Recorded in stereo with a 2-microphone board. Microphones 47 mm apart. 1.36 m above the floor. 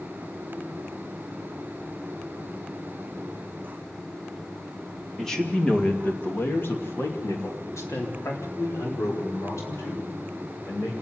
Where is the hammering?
No hammering in this recording.